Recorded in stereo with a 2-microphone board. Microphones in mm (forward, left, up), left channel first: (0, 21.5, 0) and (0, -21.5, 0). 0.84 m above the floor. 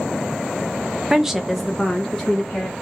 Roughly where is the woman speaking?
Centre.